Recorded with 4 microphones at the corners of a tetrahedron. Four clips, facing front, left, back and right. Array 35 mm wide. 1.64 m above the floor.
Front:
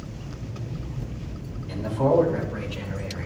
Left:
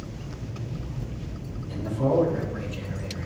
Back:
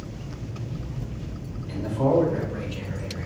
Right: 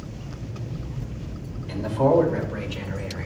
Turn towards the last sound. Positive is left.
turn(degrees=-80)